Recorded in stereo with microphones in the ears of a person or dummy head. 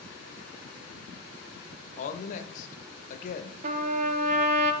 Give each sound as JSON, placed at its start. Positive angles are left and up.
{"t": 2.0, "sound": "a woman speaking", "side_deg": 40, "distance_m": 1.0}
{"t": 3.6, "sound": "a trumpet", "side_deg": -45, "distance_m": 0.7}